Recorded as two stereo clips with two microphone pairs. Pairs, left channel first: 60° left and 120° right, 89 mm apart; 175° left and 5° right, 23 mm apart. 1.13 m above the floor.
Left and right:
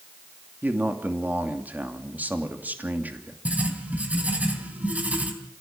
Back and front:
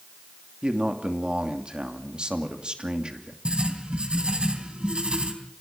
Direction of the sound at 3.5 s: 50° right.